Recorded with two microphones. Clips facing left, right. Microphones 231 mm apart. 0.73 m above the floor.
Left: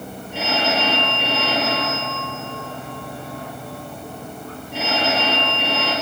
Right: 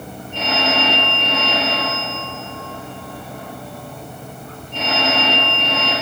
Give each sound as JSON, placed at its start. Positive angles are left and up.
{"t": 0.3, "sound": "a phone ringing", "side_deg": 10, "distance_m": 9.5}